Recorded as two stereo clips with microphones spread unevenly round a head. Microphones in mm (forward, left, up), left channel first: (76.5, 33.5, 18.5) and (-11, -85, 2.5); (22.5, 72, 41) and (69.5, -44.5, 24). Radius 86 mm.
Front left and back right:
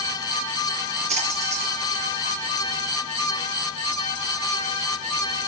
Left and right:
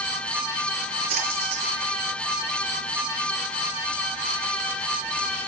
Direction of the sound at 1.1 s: 85° right.